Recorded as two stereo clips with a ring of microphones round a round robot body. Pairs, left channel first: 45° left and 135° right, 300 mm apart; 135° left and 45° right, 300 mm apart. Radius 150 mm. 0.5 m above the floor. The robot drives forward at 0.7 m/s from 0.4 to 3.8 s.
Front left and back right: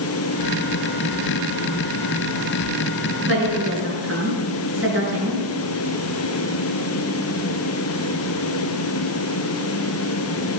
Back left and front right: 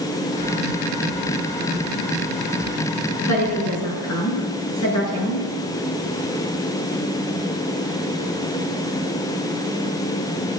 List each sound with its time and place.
3.2 s a woman speaking: 175° left, 6.5 m